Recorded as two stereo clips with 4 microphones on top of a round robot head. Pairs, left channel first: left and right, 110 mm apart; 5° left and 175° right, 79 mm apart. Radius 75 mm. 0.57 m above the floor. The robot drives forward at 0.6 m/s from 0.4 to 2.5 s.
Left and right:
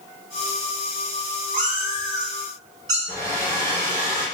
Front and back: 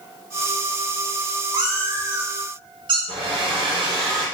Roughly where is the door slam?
No door slam in this recording.